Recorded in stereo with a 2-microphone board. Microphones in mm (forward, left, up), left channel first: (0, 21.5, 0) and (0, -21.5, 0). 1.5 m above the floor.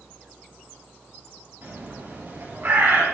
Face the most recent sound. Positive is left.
turn(degrees=-50)  # may be behind; listen again after turning